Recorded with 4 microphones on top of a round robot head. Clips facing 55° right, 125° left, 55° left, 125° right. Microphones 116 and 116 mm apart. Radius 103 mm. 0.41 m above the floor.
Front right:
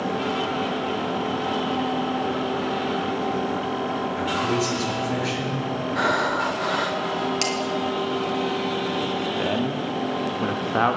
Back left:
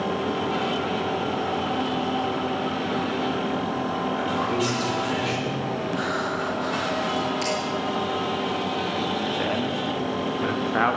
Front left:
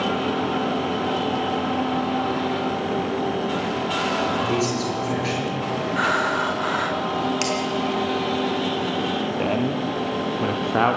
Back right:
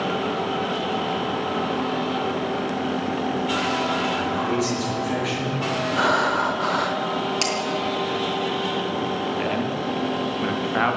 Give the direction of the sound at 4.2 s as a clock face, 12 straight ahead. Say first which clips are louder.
Front right 2 dB, front left 1 dB; 12 o'clock.